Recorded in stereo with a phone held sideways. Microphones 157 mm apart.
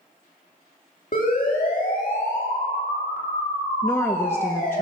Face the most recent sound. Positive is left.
turn(degrees=15)  # may be behind; listen again after turning